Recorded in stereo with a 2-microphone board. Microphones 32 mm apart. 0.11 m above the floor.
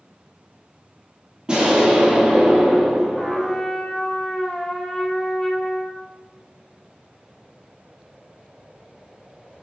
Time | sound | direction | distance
1.5 | an explosion | 25° right (ahead or behind) | 3 m
3.1 | a trumpet | 20° left (ahead or behind) | 1.1 m